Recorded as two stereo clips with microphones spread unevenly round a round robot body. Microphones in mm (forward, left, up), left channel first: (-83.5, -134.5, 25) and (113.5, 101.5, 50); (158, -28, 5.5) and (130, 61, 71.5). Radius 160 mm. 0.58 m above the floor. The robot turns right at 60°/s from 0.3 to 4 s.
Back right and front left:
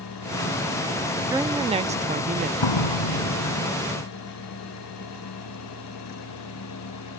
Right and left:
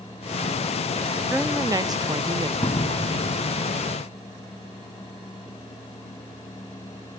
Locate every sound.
1.3 s a woman speaking: 25° right; by 2.5 s 50° left
2.6 s a door slam: 150° right; by 3.7 s 85° right